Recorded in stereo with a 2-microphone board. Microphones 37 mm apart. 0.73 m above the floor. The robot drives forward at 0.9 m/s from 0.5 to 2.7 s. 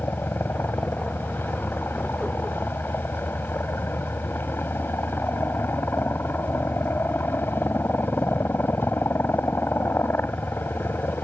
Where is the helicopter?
75° left (ahead or behind).